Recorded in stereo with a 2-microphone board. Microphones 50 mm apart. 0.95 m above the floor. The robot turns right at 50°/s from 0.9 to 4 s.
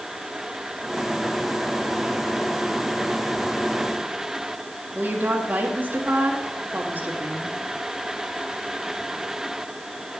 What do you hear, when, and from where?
5.0 s a woman speaking: 35° right (ahead or behind), 1.5 m